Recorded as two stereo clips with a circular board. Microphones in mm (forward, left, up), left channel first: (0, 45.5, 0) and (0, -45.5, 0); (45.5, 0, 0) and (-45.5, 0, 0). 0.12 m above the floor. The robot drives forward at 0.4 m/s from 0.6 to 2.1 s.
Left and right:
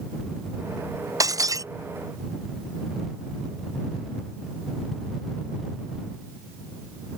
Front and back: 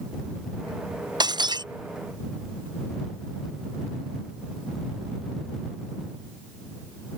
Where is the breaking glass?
140° right.